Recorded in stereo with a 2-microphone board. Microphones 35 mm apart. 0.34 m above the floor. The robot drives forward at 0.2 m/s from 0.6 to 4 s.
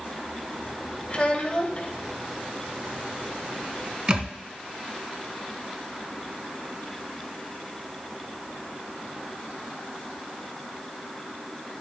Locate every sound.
1.1 s a child speaking: 30° left (ahead or behind), 0.9 m; by 1.9 s 35° left (ahead or behind), 0.9 m
4.1 s a thud: 30° right (ahead or behind), 0.6 m